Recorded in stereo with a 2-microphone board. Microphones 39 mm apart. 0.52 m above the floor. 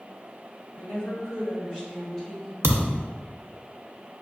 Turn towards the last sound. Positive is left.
turn(degrees=-80)